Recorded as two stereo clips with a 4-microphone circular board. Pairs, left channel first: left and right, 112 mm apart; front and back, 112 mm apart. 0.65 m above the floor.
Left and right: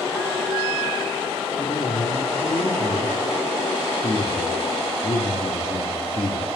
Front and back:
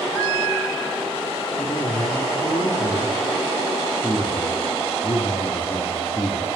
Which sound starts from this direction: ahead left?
A man speaking, at 1.6 s.